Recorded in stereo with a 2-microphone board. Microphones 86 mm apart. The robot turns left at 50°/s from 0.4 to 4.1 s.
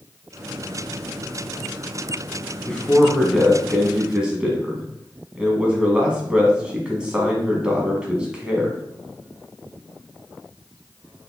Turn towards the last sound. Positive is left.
turn(degrees=-10)  # may be behind; listen again after turning